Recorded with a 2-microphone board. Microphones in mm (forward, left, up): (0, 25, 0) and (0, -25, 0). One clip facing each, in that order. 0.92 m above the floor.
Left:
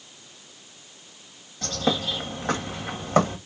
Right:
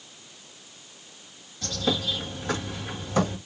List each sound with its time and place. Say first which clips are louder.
1.6 s a bird: left 2 dB; 50° left (ahead or behind), 1.4 m